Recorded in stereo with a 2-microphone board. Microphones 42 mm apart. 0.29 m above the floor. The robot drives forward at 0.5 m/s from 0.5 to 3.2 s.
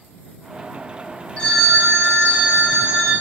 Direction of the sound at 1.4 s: 25° left (ahead or behind).